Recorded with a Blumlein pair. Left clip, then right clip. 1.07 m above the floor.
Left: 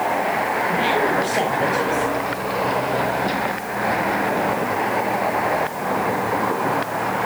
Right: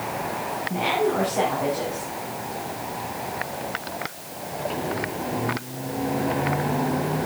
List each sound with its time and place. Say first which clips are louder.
0.7 s a woman speaking: left 1 dB; 25° left, 4.5 m